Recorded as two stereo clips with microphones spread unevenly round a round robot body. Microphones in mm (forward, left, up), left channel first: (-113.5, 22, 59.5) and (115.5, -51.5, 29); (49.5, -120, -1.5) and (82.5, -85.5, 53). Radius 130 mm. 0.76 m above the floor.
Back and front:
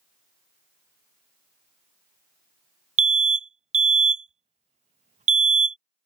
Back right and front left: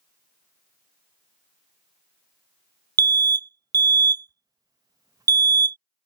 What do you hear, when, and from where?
3.0 s an alarm: 20° right